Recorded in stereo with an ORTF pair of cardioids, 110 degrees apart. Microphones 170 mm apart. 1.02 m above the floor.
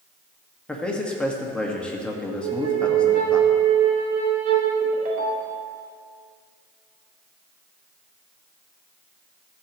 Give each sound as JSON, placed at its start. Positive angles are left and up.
{"t": 0.7, "sound": "a man speaking", "azimuth_deg": 5, "distance_m": 1.4}
{"t": 2.4, "sound": "a flute", "azimuth_deg": -65, "distance_m": 2.0}
{"t": 4.8, "sound": "a ringtone", "azimuth_deg": -60, "distance_m": 1.4}